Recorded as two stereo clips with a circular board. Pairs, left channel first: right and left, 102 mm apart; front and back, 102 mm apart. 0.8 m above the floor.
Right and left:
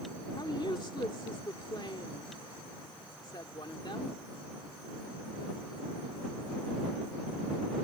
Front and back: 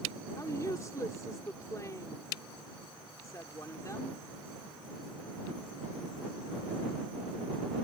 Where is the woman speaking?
55° right.